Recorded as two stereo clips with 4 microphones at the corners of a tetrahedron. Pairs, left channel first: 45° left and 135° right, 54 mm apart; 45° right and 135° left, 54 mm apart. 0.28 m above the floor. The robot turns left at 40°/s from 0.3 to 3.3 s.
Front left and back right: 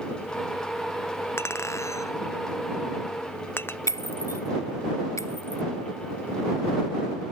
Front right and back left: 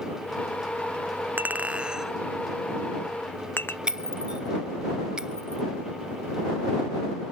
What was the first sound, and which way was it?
A clink, 80° left.